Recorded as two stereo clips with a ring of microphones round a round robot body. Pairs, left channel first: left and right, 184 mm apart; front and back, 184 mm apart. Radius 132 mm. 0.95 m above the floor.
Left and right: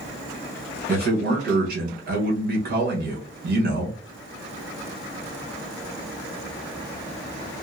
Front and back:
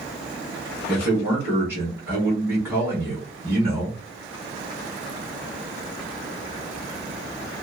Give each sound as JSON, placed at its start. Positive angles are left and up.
{"t": 0.9, "sound": "a man speaking", "azimuth_deg": -105, "distance_m": 1.3}